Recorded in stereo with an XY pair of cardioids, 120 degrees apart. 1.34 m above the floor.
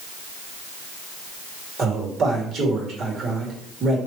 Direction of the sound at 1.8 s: 45° right.